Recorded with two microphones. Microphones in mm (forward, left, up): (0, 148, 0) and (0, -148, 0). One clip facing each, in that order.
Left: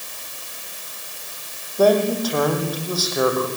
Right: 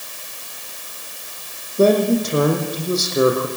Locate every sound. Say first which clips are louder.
1.8 s a man speaking: right 2 dB; 30° right (ahead or behind), 6.5 m